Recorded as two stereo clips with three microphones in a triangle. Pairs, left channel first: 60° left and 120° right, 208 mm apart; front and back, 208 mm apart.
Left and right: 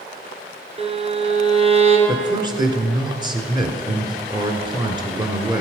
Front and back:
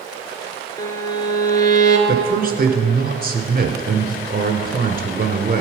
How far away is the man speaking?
About 1.6 m.